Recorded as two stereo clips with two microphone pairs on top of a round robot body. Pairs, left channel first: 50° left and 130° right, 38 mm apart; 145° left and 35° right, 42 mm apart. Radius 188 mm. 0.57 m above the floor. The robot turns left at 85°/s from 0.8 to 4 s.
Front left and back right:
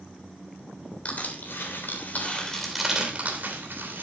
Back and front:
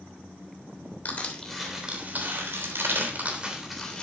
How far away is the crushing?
About 3 m.